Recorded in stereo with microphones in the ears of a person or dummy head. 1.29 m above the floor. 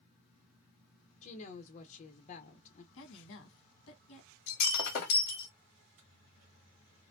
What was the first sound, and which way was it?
A woman speaking, 40° left (ahead or behind).